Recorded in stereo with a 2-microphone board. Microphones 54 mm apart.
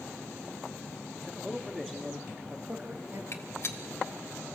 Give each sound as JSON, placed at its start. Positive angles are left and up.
{"t": 1.1, "sound": "a man speaking", "side_deg": 5, "distance_m": 3.5}
{"t": 3.3, "sound": "a gunshot", "side_deg": 55, "distance_m": 1.9}